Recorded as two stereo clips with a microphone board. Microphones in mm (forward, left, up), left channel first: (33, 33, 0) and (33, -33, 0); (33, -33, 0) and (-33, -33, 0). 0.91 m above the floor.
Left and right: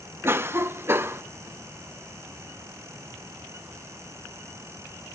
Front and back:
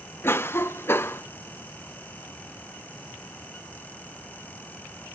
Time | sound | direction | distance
0.2 | a cough | 45° right | 0.6 m